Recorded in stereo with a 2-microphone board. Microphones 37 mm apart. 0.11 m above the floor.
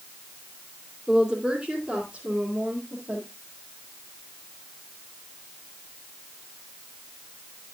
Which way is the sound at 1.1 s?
20° right (ahead or behind).